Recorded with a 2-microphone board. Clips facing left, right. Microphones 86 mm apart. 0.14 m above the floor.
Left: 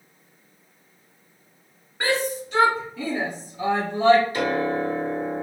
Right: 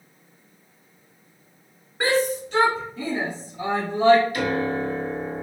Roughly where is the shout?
Centre.